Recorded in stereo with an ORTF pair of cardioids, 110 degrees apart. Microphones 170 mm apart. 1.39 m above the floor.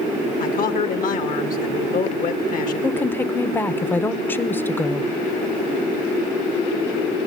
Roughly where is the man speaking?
Ahead left.